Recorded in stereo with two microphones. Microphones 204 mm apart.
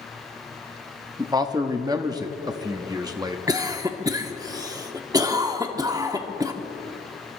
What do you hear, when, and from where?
1.2 s a man speaking: 20° right (ahead or behind), 0.9 m
3.5 s a cough: 15° right (ahead or behind), 1.1 m